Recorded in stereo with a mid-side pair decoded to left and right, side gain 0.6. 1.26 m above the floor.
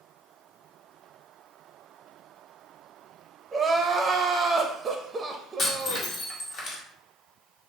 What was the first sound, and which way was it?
Crying, 25° right.